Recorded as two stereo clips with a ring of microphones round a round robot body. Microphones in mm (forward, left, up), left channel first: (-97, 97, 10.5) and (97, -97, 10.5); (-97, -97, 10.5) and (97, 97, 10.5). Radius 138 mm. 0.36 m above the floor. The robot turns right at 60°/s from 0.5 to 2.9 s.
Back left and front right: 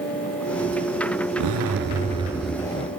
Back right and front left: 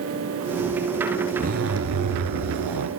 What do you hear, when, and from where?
1.4 s a zipper: 20° right, 1.0 m; by 2.9 s 70° left, 1.0 m